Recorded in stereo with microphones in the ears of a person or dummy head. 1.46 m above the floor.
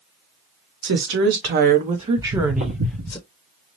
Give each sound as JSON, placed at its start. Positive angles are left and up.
{"t": 0.8, "sound": "a woman speaking", "side_deg": -70, "distance_m": 1.2}
{"t": 2.2, "sound": "footsteps", "side_deg": -60, "distance_m": 3.0}